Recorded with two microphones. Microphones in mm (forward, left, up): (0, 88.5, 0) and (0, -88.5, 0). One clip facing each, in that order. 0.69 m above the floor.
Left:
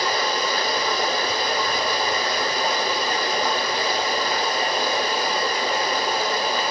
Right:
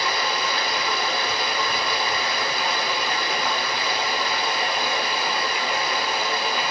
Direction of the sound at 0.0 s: 40° left (ahead or behind).